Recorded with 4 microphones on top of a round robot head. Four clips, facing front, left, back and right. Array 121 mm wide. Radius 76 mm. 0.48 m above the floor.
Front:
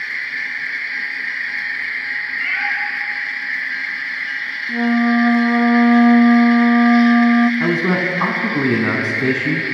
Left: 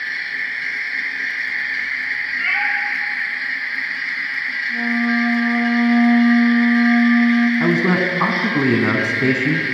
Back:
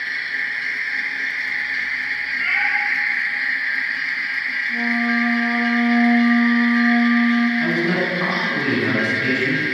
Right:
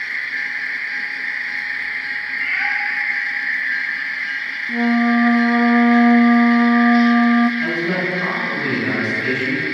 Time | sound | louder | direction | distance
2.4 | a cat meowing | left 1 dB, back 1 dB | 105° left | 6 m
4.7 | a flute | right 4 dB, front 7 dB | 50° right | 0.9 m
7.6 | a man speaking | left 4 dB, front 2 dB | 50° left | 4 m